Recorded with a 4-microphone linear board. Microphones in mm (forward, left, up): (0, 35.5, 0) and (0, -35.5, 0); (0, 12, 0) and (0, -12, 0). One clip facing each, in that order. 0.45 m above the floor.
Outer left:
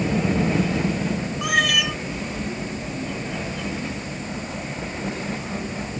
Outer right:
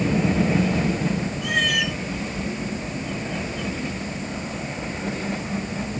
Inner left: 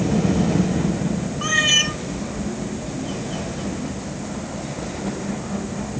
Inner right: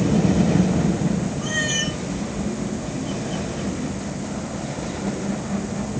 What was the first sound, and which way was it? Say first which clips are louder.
A cat meowing: outer left 3 dB, inner left 9 dB; 85° left.